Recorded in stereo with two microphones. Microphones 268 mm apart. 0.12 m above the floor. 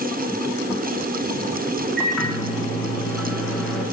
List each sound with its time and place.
2.0 s a microwave: centre (ahead or behind), 7.5 m